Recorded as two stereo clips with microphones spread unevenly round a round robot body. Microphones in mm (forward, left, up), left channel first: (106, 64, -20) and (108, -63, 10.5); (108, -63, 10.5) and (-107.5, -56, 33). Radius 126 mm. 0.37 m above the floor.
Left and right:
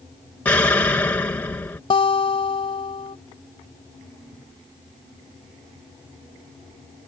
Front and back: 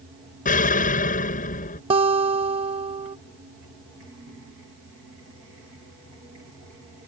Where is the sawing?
No sawing in this recording.